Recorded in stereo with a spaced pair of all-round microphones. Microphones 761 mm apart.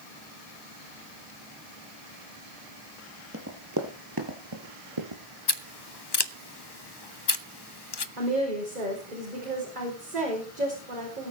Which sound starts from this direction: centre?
Running footsteps, at 3.3 s.